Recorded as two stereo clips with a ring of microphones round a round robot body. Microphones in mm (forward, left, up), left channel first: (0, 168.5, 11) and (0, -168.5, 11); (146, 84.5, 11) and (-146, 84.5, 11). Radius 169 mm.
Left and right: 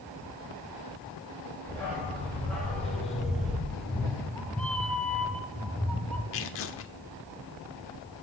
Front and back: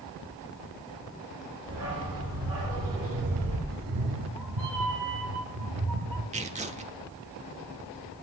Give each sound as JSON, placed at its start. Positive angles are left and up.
{"t": 1.7, "sound": "a dog barking", "azimuth_deg": 175, "distance_m": 6.0}
{"t": 3.7, "sound": "a cat meowing", "azimuth_deg": 175, "distance_m": 1.2}
{"t": 6.3, "sound": "tearing paper", "azimuth_deg": 125, "distance_m": 1.0}